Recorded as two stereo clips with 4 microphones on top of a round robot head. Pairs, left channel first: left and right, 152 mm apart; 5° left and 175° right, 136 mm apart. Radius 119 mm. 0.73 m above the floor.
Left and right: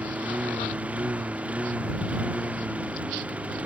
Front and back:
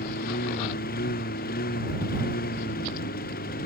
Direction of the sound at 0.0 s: 10° right.